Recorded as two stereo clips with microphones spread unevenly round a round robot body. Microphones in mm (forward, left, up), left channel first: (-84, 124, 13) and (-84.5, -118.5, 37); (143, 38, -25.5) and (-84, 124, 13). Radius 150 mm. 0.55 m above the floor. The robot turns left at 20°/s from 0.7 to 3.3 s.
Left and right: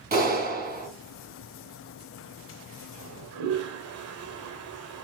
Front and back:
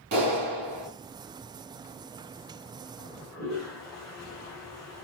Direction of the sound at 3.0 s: 100° right.